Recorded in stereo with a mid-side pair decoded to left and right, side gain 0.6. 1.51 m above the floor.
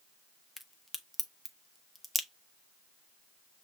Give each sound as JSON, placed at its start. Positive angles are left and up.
{"t": 0.6, "sound": "a crack", "azimuth_deg": 5, "distance_m": 0.6}